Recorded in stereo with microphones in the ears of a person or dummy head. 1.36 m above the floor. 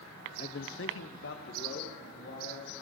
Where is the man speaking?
30° left (ahead or behind), 0.6 m; by 2.7 s 60° left (ahead or behind), 3.5 m.